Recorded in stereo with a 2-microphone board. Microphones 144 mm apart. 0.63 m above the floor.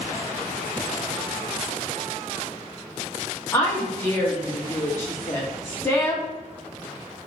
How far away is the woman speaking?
About 0.9 m.